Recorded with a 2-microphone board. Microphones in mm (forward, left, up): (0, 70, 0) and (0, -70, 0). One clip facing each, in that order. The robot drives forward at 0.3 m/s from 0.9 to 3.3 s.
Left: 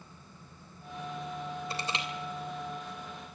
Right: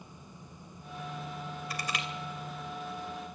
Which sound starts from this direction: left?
Crushing, at 1.7 s.